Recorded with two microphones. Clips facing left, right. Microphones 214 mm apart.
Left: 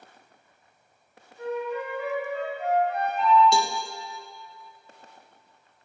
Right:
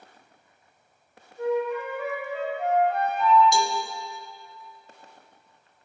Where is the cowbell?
65° left (ahead or behind), 0.5 m.